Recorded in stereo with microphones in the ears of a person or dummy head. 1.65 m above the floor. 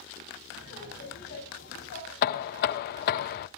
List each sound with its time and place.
0.5 s laughter: 55° left (ahead or behind), 6.5 m; by 3.2 s 65° left (ahead or behind), 7.5 m
2.2 s knocking: 55° left (ahead or behind), 0.5 m